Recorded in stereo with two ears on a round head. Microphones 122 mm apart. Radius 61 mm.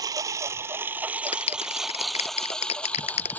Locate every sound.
0.0 s a lawn mower: 25° right (ahead or behind); by 3.4 s 10° left (ahead or behind)
1.3 s a clap: 50° left (ahead or behind)